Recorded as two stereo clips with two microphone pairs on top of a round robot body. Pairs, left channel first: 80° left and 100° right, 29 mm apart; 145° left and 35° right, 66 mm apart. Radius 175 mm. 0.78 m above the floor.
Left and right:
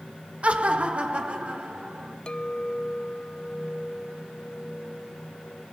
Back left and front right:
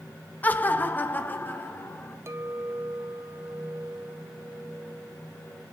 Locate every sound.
0.4 s laughter: 150° right, 1.0 m; by 2.2 s 155° right, 3.5 m
2.3 s a clink: 20° left, 1.0 m